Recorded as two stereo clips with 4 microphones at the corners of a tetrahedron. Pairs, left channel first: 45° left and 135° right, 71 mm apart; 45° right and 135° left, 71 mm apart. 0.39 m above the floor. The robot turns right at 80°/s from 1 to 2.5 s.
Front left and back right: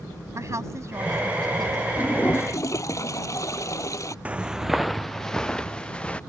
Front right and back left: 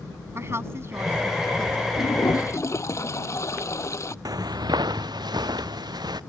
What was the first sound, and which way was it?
A woman speaking, 175° right.